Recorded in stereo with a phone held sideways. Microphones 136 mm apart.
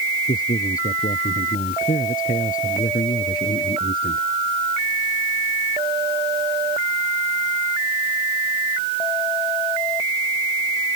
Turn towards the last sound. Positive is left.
turn(degrees=80)